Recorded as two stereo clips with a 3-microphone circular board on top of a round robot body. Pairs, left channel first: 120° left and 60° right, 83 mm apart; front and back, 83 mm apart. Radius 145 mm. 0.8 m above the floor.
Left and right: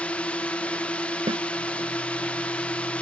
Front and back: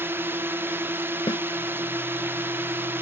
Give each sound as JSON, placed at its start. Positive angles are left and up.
{"t": 0.0, "sound": "a drone", "azimuth_deg": 175}
{"t": 1.3, "sound": "a snare drum", "azimuth_deg": -40}